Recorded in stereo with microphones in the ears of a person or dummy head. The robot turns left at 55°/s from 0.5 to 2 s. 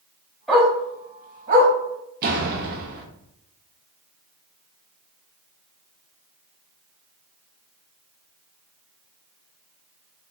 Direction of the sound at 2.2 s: 45° right (ahead or behind).